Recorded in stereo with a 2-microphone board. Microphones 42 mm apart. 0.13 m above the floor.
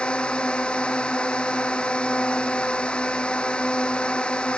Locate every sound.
0.0 s a drone: 20° left (ahead or behind)